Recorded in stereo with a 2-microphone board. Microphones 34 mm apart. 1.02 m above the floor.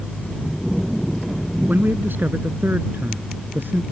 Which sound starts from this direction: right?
A man speaking, at 1.7 s.